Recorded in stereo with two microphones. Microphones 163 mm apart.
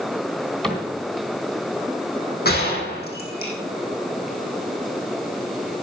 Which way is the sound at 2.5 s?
70° left (ahead or behind).